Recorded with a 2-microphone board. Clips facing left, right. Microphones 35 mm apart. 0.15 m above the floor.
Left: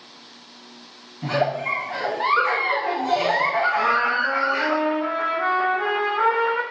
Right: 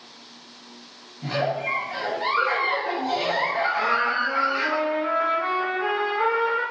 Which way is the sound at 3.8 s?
70° left (ahead or behind).